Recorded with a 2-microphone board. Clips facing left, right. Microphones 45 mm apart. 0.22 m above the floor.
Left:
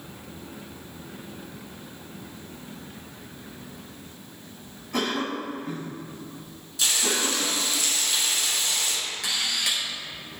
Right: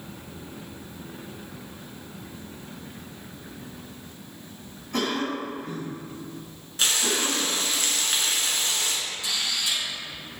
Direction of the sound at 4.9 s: Centre (ahead or behind).